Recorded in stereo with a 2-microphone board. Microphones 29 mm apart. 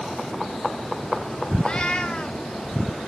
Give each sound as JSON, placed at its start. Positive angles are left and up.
{"t": 1.6, "sound": "a cat meowing", "side_deg": 30, "distance_m": 0.6}